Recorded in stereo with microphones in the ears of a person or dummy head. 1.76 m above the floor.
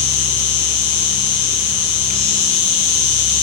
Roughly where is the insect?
Left.